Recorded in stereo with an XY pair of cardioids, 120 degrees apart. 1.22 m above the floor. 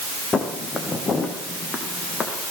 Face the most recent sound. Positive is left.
turn(degrees=40)